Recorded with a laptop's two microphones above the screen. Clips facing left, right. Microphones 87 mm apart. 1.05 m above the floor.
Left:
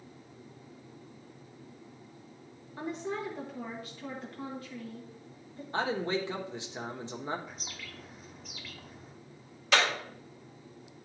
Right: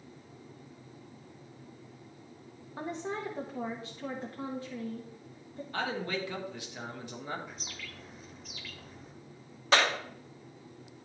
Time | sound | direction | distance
2.8 | a woman speaking | 25° right (ahead or behind) | 1.0 m
5.7 | a man speaking | 25° left (ahead or behind) | 1.1 m
7.5 | a bird | centre (ahead or behind) | 0.9 m
9.7 | a clap | 35° right (ahead or behind) | 2 m